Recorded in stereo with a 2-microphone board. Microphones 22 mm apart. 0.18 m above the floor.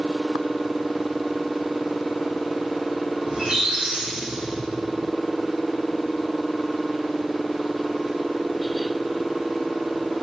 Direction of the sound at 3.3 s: 55° right (ahead or behind).